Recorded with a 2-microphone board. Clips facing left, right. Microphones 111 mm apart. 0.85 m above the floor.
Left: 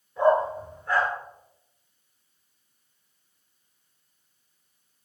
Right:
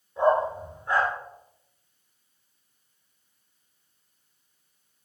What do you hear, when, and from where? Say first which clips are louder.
0.2 s a dog barking: left 1 dB; 20° right (ahead or behind), 4 m